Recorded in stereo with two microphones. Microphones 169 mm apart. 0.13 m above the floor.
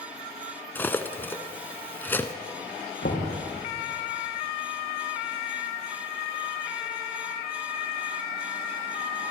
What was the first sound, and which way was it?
Cutlery clinking, 10° left (ahead or behind).